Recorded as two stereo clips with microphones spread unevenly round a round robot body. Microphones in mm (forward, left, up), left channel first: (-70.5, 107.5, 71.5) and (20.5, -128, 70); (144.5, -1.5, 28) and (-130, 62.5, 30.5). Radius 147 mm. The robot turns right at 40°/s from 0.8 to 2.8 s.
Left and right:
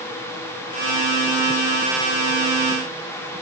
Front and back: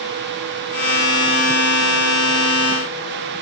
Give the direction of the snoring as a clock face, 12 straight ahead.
No snoring in this recording.